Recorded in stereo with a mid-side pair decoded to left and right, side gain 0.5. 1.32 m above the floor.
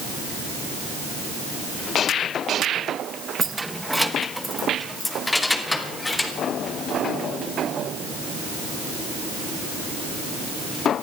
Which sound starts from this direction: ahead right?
Keys jangling, at 3.4 s.